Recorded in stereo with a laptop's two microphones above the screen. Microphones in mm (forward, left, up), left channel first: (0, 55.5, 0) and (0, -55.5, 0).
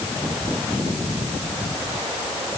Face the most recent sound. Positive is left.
No sound to turn to.